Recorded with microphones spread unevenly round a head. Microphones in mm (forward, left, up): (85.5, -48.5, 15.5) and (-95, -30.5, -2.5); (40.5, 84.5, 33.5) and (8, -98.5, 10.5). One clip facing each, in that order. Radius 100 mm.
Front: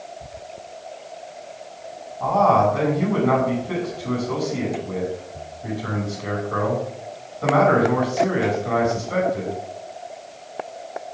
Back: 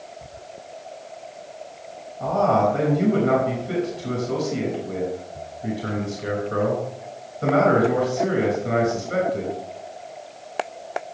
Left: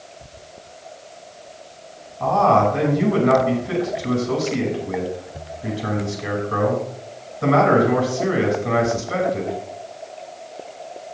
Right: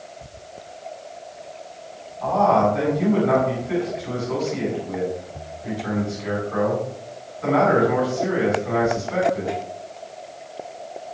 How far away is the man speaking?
About 5.5 m.